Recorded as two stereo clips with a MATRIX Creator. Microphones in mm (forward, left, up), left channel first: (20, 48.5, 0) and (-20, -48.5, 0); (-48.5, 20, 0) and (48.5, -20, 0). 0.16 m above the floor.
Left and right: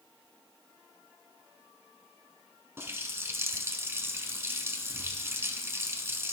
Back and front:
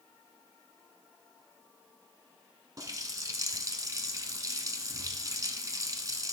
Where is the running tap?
60° right, 0.9 m.